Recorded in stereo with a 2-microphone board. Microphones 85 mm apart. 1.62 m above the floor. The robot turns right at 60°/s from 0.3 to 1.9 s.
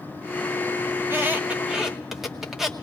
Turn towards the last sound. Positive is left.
turn(degrees=-5)  # may be behind; listen again after turning